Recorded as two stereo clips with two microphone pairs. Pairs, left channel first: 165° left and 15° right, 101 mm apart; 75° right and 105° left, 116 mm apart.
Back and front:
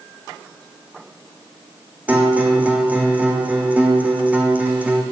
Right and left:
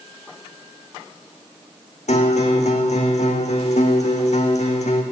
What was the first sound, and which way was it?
A guitar, 85° right.